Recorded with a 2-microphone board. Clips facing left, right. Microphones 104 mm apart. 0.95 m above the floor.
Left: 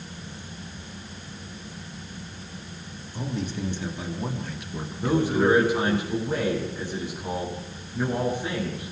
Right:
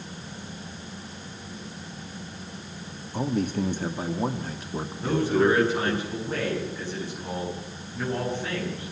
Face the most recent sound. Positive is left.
turn(degrees=15)  # may be behind; listen again after turning